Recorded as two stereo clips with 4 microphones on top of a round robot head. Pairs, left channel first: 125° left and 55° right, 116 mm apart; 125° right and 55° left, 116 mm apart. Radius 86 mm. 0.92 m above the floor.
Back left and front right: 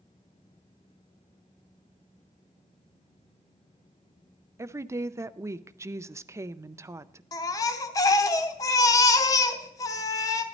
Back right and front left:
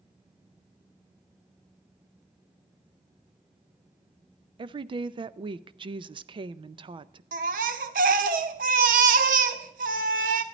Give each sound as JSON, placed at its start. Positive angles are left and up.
{"t": 4.6, "sound": "a woman speaking", "azimuth_deg": 10, "distance_m": 0.5}
{"t": 7.3, "sound": "a baby crying", "azimuth_deg": 65, "distance_m": 0.7}